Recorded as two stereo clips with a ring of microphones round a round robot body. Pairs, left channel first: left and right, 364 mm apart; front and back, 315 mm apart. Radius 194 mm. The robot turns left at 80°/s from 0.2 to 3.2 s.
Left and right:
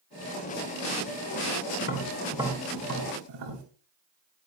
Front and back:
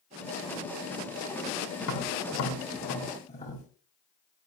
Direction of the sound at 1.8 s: 40° left.